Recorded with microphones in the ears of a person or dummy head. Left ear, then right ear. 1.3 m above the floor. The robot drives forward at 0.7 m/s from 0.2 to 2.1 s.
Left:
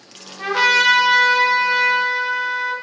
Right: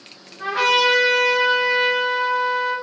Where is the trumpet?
55° left (ahead or behind), 1.0 m; by 2.7 s 45° left (ahead or behind), 1.2 m.